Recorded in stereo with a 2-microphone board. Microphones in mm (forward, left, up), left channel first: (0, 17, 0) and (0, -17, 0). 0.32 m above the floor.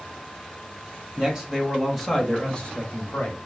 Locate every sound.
1.2 s a man speaking: 20° right (ahead or behind), 1.5 m; by 3.4 s 40° left (ahead or behind), 1.1 m